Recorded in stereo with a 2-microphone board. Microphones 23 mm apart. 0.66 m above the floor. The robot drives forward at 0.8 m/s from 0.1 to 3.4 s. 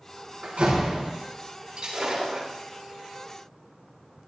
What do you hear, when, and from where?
0.4 s a door slam: 85° right, 6 m; by 1.1 s 80° right, 6 m
1.8 s breaking glass: 50° right (ahead or behind), 5.5 m; by 2.5 s 45° right (ahead or behind), 5.5 m